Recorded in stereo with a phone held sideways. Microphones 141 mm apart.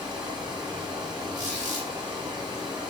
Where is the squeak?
60° right (ahead or behind), 3 m.